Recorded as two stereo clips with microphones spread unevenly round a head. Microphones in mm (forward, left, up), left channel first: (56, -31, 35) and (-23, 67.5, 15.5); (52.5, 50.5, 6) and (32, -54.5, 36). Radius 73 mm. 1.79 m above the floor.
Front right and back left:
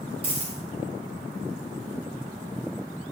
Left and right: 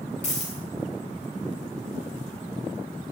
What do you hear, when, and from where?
0.2 s a dropped coin: 90° left, 2.5 m